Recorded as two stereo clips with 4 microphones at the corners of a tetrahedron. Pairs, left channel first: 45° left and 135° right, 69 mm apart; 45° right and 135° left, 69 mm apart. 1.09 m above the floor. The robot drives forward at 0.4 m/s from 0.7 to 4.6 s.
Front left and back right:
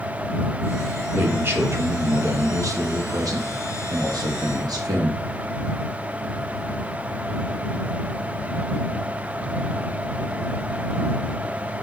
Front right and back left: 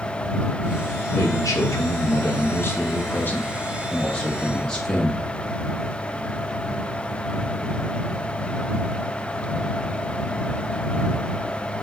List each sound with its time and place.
1.1 s a man speaking: 75° right, 1.4 m; by 5.2 s 125° right, 1.7 m